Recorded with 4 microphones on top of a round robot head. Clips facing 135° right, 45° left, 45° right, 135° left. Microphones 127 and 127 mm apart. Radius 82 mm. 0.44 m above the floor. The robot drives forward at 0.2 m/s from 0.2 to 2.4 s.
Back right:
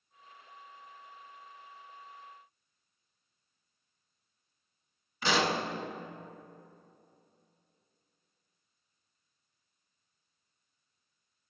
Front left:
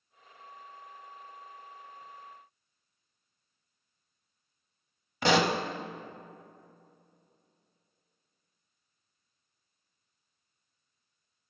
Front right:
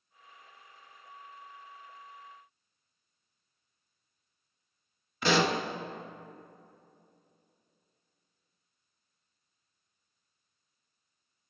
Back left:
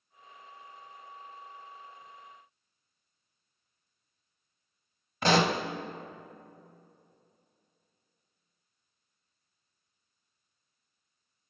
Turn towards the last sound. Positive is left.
turn(degrees=85)